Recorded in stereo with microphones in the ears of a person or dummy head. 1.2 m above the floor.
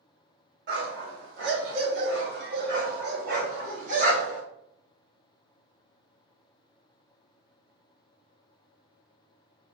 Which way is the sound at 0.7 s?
60° right (ahead or behind).